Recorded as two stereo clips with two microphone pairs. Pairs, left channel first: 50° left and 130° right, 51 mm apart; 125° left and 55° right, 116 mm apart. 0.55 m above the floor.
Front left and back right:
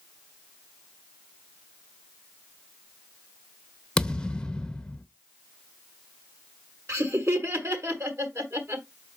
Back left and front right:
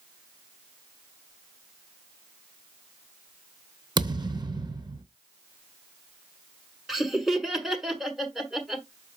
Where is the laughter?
140° right, 1.6 m.